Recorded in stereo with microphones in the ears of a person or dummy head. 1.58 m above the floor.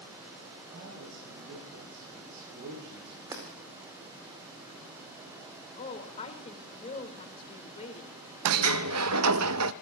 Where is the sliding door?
90° right, 0.6 m.